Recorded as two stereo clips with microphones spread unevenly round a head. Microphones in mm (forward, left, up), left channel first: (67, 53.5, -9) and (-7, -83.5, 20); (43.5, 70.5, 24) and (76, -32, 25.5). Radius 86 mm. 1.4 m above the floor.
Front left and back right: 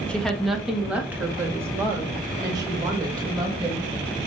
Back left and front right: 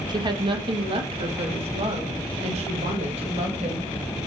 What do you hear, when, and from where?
0.1 s a woman speaking: 25° right, 1.5 m; by 3.9 s 60° right, 3 m